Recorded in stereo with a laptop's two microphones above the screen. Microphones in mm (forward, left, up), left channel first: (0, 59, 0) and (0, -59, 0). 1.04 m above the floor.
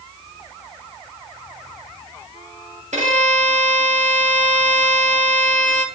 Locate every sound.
2.9 s a violin: 85° right, 1.4 m